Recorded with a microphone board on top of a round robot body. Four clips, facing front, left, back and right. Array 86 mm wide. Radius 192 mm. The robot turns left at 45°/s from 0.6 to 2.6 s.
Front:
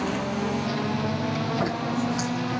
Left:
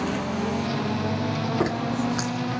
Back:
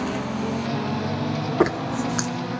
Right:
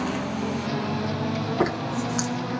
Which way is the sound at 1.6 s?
170° right.